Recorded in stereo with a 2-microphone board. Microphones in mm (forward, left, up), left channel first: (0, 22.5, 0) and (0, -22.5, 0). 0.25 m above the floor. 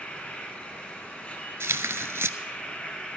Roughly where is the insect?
Left.